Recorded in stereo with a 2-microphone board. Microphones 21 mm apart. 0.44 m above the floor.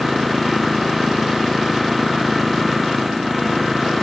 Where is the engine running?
5° right (ahead or behind).